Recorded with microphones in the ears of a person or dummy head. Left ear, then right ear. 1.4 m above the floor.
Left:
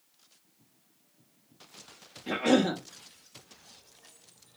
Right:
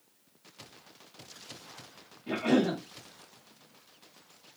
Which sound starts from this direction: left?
A cough, at 2.3 s.